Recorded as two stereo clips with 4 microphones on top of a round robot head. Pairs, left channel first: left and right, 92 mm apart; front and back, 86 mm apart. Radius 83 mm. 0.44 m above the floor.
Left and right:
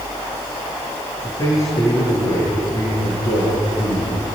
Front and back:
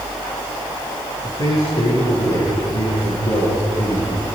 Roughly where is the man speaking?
Ahead left.